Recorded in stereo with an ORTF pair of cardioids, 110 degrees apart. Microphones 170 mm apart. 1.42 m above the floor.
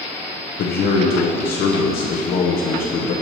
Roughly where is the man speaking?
Ahead left.